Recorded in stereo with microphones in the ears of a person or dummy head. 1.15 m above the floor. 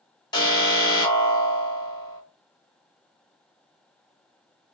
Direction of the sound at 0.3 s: 20° left (ahead or behind).